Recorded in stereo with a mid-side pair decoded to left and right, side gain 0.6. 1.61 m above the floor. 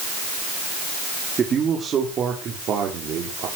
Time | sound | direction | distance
1.4 | a man speaking | 35° right | 4 m